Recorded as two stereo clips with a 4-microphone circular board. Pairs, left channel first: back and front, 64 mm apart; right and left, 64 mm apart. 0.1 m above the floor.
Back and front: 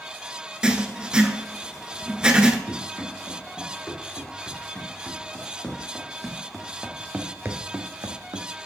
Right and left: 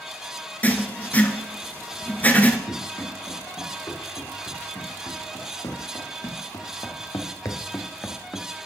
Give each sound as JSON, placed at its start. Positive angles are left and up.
{"t": 0.6, "sound": "writing", "azimuth_deg": -60, "distance_m": 0.8}
{"t": 2.7, "sound": "running footsteps", "azimuth_deg": -115, "distance_m": 4.5}